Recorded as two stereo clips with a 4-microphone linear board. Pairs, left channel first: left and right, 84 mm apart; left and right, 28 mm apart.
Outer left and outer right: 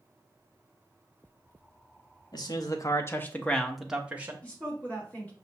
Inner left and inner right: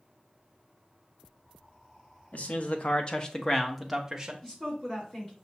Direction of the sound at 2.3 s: 60° left (ahead or behind).